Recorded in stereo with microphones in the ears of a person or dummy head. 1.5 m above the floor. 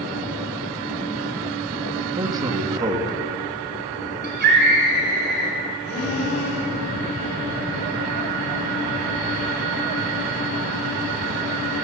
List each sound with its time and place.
2.2 s a man speaking: 20° right (ahead or behind), 3 m
4.2 s a scream: 55° right (ahead or behind), 7 m
5.8 s breathing: 40° left (ahead or behind), 3.5 m